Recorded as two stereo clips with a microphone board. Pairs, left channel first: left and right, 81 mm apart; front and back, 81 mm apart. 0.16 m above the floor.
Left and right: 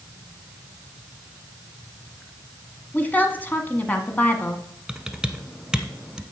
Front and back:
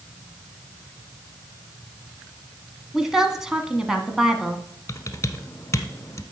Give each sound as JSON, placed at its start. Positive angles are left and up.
{"t": 2.9, "sound": "a woman speaking", "azimuth_deg": 105, "distance_m": 1.1}
{"t": 4.9, "sound": "typing on a keyboard", "azimuth_deg": -10, "distance_m": 0.8}